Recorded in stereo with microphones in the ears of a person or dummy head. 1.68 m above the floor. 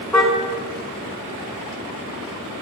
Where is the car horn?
Centre (ahead or behind), 4 m; by 2.6 s 50° right (ahead or behind), 4.5 m.